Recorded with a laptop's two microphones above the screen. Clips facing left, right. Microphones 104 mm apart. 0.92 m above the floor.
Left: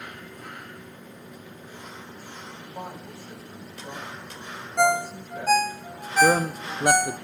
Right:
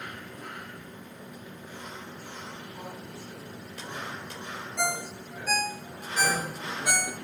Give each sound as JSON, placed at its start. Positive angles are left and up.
{"t": 2.6, "sound": "a woman speaking", "side_deg": 65, "distance_m": 5.5}
{"t": 4.8, "sound": "a ringtone", "side_deg": 50, "distance_m": 0.5}
{"t": 6.2, "sound": "a man speaking", "side_deg": 55, "distance_m": 0.6}